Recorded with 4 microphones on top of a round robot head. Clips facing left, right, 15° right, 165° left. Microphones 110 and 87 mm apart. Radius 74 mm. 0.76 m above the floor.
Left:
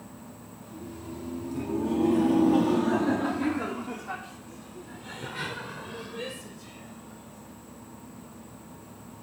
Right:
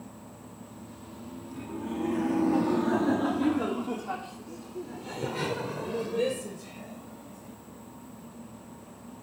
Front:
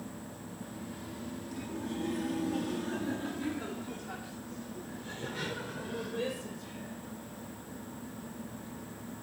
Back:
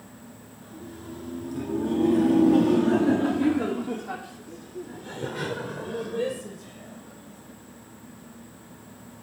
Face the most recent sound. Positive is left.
turn(degrees=-125)